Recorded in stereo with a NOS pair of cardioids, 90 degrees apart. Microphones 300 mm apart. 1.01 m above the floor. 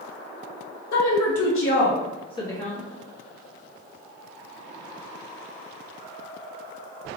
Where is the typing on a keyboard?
I don't hear typing on a keyboard.